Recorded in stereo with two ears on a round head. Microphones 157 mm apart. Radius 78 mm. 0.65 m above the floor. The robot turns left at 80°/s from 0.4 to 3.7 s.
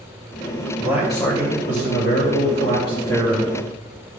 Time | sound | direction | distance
0.8 | a man speaking | 155° right | 3 m